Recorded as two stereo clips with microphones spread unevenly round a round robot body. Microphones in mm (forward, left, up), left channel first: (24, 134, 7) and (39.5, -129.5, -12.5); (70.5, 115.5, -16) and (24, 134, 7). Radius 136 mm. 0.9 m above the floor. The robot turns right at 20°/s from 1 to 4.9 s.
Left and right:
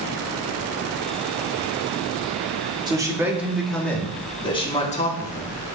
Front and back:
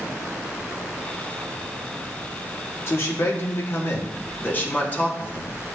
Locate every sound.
2.9 s a man speaking: 15° right, 1.8 m; by 5.5 s 25° left, 1.8 m